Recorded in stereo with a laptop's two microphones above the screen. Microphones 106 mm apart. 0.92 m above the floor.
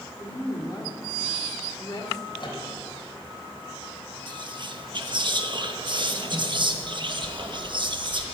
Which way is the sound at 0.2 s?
40° left (ahead or behind).